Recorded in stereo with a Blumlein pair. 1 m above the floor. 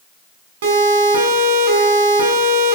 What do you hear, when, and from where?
0.6 s a siren: 60° right, 7 m